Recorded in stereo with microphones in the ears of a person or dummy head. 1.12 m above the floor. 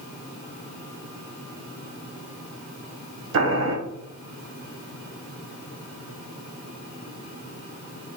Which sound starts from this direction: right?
Boiling, at 3.3 s.